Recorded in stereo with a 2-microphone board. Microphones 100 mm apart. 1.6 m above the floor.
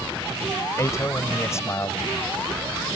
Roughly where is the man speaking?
Left.